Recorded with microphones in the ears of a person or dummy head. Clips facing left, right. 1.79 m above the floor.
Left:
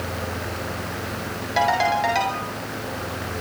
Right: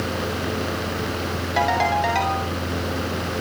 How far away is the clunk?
No clunk in this recording.